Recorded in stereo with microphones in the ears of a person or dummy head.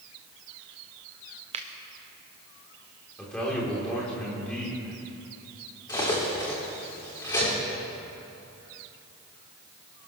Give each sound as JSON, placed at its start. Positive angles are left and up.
{"t": 1.5, "sound": "a finger snap", "side_deg": -30, "distance_m": 0.8}
{"t": 3.2, "sound": "a man speaking", "side_deg": 10, "distance_m": 4.0}
{"t": 5.9, "sound": "cutlery clinking", "side_deg": 20, "distance_m": 2.5}